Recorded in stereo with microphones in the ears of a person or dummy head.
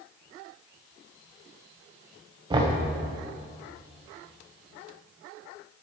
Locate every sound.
2.5 s knocking: 20° right (ahead or behind), 0.8 m